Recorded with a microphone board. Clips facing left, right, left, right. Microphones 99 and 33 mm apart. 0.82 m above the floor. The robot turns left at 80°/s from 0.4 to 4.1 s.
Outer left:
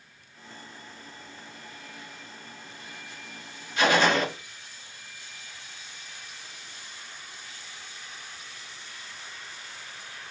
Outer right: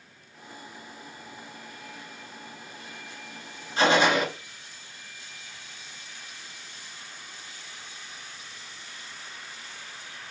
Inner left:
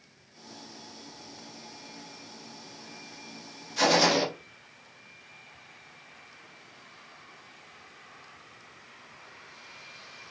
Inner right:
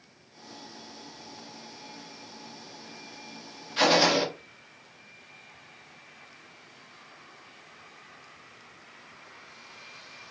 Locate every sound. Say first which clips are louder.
3.8 s a gunshot: outer right 1 dB, inner right 1 dB; 35° right (ahead or behind), 0.8 m; by 4.3 s 10° right (ahead or behind), 0.8 m